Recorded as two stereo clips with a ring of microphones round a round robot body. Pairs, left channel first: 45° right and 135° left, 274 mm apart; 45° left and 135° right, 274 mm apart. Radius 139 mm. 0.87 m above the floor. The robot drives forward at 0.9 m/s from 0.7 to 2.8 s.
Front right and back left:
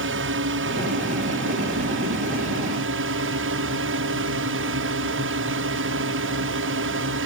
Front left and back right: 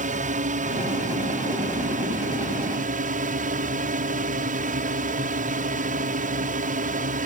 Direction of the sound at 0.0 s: 170° left.